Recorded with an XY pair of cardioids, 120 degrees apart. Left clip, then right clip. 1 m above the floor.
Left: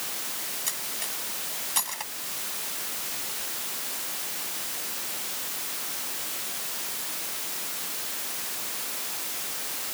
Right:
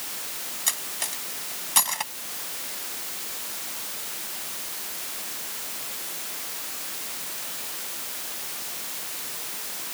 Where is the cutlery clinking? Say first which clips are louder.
Right 7 dB; 40° right.